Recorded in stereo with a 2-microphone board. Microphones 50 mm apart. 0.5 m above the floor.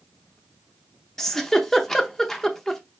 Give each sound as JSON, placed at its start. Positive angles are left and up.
{"t": 1.2, "sound": "a giggle", "side_deg": 10, "distance_m": 0.6}